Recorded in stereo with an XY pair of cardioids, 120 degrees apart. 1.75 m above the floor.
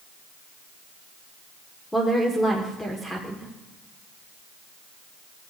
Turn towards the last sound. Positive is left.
turn(degrees=10)